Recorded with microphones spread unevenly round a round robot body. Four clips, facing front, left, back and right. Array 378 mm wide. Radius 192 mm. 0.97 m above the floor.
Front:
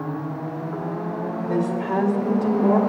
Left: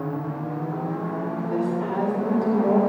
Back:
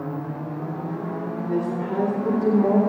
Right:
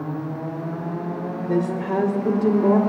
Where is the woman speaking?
90° right, 4.5 m; by 2.8 s 80° right, 3 m.